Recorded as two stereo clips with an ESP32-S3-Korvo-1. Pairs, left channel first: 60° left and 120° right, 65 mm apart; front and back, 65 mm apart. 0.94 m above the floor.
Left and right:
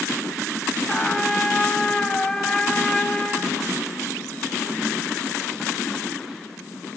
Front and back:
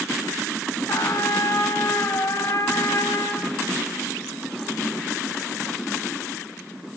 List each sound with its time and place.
0.9 s a trumpet: 20° right, 1.2 m